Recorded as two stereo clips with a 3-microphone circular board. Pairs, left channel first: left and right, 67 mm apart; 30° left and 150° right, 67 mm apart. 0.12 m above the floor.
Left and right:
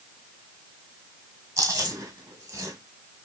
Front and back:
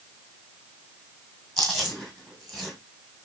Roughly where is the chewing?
Ahead right.